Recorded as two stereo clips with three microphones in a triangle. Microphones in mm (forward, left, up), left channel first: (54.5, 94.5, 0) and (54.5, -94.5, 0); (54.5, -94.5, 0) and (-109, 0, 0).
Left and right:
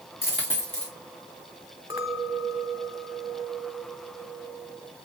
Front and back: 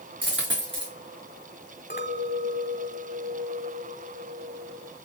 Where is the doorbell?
No doorbell in this recording.